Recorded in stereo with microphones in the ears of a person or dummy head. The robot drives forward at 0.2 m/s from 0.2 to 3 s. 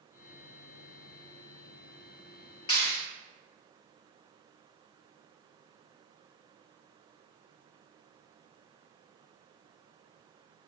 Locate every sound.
2.7 s a clap: 20° left (ahead or behind), 1.1 m